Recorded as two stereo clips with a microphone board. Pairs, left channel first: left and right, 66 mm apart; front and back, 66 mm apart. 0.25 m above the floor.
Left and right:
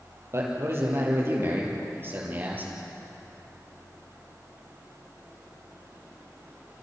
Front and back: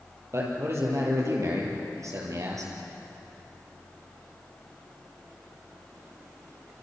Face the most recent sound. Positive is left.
turn(degrees=-150)